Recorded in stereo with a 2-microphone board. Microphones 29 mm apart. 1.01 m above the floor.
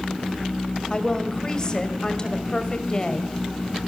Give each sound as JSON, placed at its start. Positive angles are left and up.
{"t": 0.9, "sound": "a woman speaking", "side_deg": 25, "distance_m": 4.5}